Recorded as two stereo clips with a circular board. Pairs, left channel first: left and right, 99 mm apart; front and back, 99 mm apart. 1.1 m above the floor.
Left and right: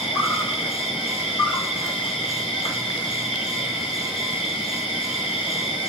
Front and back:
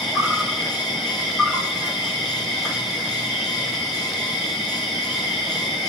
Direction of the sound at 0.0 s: 90° left.